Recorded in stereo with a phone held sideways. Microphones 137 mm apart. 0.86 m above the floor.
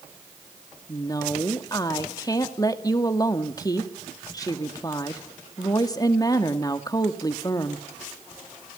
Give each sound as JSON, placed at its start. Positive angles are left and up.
{"t": 0.9, "sound": "a woman speaking", "side_deg": 25, "distance_m": 1.8}